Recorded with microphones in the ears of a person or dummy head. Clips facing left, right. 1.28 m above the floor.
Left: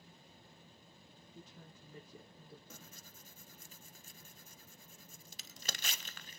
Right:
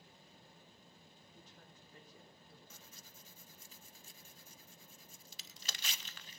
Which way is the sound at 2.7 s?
40° left (ahead or behind).